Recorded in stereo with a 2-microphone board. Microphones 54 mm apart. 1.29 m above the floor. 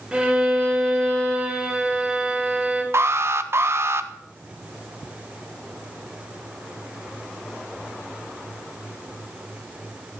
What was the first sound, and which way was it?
A violin, 10° right (ahead or behind).